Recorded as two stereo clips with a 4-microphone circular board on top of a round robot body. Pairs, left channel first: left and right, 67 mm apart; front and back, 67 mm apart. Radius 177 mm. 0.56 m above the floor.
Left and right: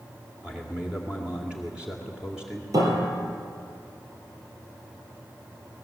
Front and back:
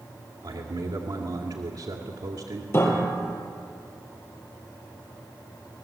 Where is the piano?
55° right, 3.5 m.